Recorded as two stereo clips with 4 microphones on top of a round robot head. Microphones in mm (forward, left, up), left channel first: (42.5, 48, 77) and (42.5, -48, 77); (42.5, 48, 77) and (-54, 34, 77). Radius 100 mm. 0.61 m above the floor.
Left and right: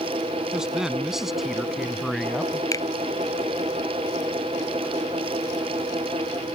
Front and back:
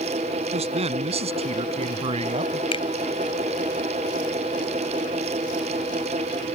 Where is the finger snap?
35° left.